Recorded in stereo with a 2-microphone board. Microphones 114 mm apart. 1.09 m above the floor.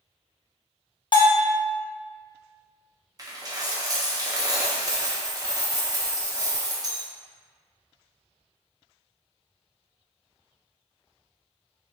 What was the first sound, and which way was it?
A bell, 45° left (ahead or behind).